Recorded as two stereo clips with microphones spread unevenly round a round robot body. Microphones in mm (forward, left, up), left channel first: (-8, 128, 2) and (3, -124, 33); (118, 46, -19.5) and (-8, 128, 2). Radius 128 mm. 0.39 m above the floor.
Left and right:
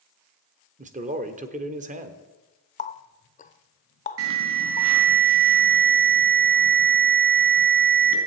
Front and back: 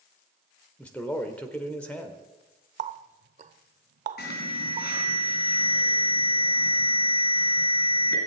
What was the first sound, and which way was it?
A man speaking, 75° right.